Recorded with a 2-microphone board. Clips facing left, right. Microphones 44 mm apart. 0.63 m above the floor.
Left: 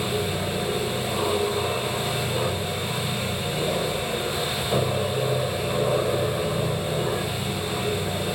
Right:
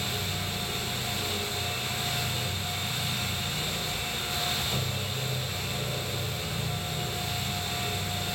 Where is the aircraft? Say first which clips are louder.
Left 7 dB; 60° left (ahead or behind).